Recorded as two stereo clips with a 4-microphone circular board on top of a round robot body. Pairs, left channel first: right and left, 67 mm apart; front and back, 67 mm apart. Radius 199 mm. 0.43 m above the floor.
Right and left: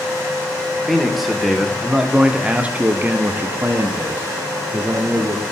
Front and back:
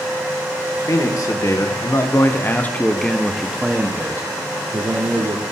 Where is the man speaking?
Straight ahead, 1.9 m; by 5.4 s 145° left, 2.0 m.